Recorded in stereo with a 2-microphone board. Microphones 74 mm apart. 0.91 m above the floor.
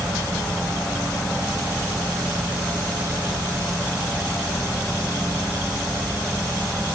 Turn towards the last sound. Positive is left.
No sound to turn to.